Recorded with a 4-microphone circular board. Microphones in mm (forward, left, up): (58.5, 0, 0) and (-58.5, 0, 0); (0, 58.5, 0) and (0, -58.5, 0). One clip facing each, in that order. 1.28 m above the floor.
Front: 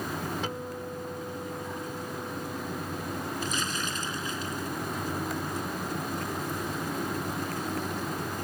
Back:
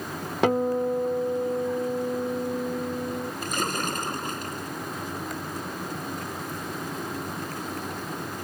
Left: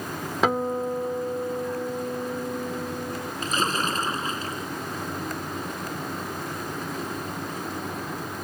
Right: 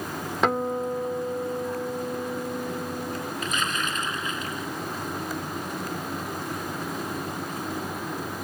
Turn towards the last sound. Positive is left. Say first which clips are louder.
# back 4 dB, left 6 dB
turn(degrees=145)